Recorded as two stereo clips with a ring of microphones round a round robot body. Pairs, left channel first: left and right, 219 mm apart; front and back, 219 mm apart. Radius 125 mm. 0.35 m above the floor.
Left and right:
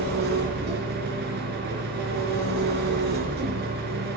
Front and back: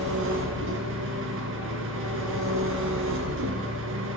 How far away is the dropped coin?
I don't hear a dropped coin.